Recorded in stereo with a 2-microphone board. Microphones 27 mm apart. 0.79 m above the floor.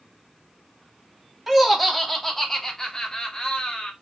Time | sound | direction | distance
1.5 | laughter | 10° right (ahead or behind) | 2 m